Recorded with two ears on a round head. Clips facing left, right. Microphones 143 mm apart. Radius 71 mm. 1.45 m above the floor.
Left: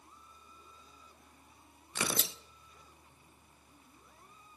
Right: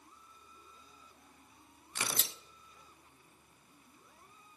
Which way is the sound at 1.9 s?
75° left (ahead or behind).